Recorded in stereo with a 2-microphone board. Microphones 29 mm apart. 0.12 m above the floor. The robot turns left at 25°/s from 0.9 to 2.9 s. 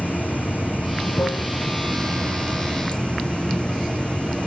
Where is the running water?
95° left, 0.9 m; by 4.5 s 45° left, 0.9 m.